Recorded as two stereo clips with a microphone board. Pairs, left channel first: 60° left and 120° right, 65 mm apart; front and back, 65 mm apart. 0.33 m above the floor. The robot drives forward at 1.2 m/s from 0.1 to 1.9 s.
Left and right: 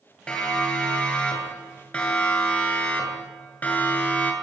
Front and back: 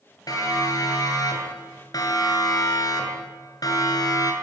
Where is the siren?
15° right, 10 m; by 4.3 s straight ahead, 7 m.